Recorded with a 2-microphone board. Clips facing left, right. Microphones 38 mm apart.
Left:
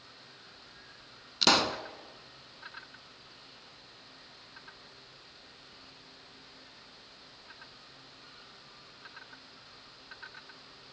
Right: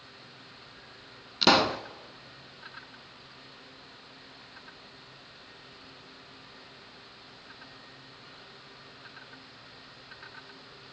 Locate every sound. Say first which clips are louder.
1.4 s a pop: right 4 dB; 10° right (ahead or behind), 0.6 m